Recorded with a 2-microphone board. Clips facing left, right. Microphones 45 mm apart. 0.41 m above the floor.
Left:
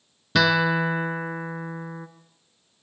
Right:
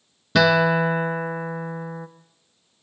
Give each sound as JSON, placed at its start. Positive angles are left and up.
{"t": 0.3, "sound": "a guitar", "side_deg": 0, "distance_m": 1.2}